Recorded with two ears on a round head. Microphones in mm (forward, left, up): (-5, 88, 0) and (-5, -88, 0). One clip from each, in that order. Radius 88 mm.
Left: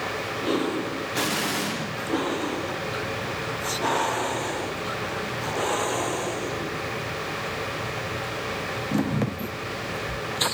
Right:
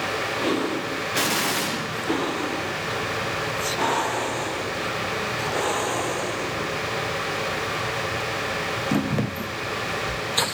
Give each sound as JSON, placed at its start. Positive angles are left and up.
{"t": 1.1, "sound": "an explosion", "side_deg": -15, "distance_m": 0.9}